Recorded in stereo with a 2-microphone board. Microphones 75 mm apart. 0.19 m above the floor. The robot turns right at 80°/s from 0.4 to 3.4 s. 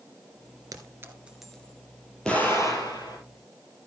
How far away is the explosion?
About 5 m.